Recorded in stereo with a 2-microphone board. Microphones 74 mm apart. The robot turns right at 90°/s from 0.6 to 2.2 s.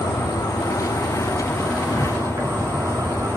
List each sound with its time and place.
0.0 s an insect: 80° left, 3.5 m; by 3.4 s 135° right, 3.5 m